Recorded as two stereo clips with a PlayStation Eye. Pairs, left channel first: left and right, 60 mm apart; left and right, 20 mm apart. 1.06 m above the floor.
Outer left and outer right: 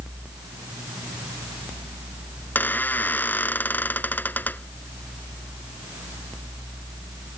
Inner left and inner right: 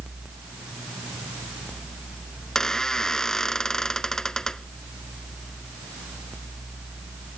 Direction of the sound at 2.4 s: 30° left (ahead or behind).